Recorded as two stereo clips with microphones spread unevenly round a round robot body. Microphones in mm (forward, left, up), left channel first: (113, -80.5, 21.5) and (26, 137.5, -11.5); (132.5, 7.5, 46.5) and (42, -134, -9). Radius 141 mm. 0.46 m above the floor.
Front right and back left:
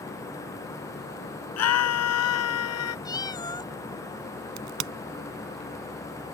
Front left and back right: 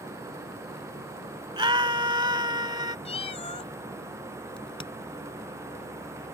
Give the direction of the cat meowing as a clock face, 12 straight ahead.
12 o'clock.